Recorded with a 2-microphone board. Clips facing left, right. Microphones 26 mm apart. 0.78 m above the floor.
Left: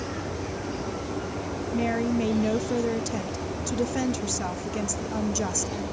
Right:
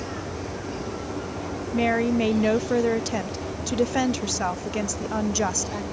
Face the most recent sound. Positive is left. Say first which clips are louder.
# right 4 dB
turn(degrees=-30)  # may be behind; listen again after turning